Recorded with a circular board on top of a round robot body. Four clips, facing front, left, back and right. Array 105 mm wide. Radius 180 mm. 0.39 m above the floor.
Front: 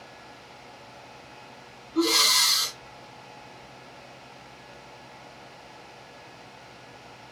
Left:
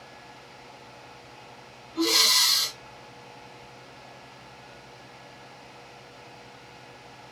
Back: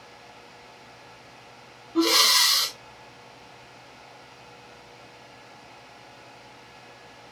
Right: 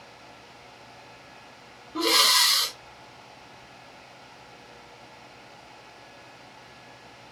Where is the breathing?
130° right, 0.8 m.